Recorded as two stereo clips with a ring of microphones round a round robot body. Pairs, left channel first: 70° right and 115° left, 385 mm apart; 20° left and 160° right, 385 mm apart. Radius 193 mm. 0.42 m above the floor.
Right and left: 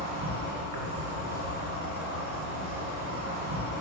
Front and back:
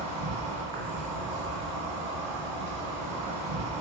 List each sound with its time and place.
0.0 s an insect: 160° left, 1.3 m